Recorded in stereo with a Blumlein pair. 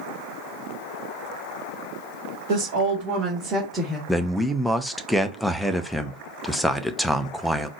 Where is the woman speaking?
50° right, 1.6 m; by 4.0 s 5° left, 1.6 m.